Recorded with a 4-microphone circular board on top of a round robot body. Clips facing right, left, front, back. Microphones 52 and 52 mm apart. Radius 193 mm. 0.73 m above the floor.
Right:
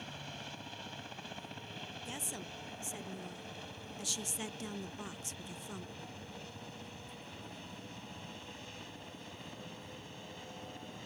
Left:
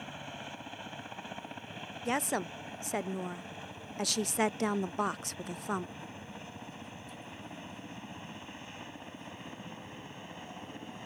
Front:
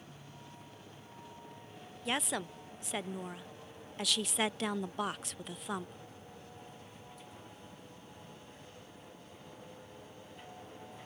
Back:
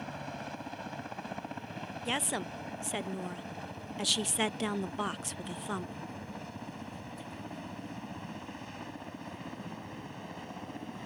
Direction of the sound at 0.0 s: 160° left.